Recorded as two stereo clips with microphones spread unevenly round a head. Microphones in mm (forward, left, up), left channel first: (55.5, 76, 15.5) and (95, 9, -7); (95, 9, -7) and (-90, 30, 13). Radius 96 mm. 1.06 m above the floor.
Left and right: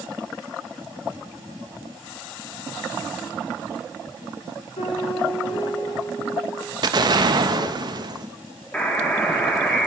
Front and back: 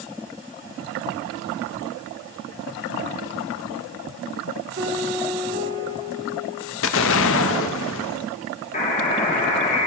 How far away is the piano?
About 4.5 m.